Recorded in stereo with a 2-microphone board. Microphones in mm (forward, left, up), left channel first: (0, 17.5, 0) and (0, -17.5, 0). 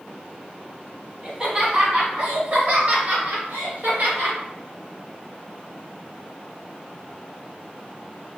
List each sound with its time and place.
1.2 s laughter: 20° right (ahead or behind), 1.4 m; by 4.4 s 50° right (ahead or behind), 2.5 m